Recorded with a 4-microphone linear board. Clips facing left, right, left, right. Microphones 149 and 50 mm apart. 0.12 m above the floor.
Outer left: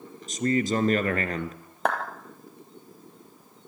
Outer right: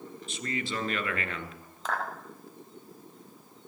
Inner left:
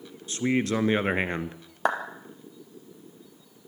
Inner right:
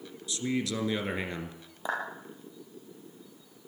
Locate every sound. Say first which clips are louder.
0.3 s a man speaking: outer left 11 dB, inner left 6 dB; 40° left (ahead or behind), 1.5 m
1.9 s a clap: outer left 7 dB, inner left 7 dB; 65° left (ahead or behind), 2.5 m